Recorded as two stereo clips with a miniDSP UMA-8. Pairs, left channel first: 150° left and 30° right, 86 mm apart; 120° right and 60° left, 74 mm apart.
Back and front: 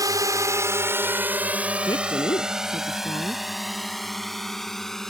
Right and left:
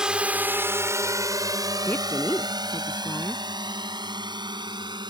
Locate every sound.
0.0 s a drone: 15° right; by 5.1 s 65° left
1.9 s a woman speaking: 175° left